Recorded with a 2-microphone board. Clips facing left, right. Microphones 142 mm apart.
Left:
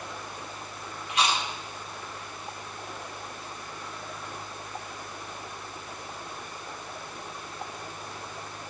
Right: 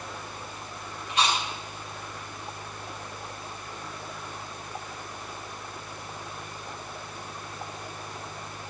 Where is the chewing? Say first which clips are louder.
Even; 35° right (ahead or behind), 2.5 m.